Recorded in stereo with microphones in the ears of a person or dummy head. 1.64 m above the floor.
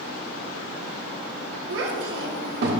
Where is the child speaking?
65° right (ahead or behind), 1.0 m; by 2.8 s 55° right (ahead or behind), 1.7 m.